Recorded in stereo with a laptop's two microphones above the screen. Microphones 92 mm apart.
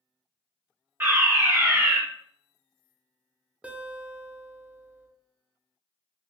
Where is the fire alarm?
25° right (ahead or behind), 1.2 m.